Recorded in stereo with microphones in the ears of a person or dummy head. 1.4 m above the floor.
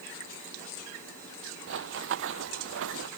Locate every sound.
1.7 s running footsteps: 70° right (ahead or behind); by 3.1 s 75° right (ahead or behind)